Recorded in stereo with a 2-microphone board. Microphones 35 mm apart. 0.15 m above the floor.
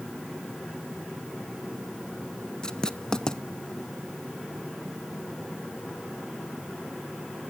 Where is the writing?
25° left (ahead or behind), 0.5 m.